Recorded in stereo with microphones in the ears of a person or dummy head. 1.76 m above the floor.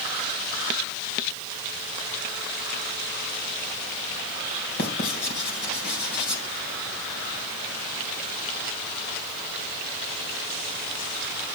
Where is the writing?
60° left (ahead or behind), 3.5 m.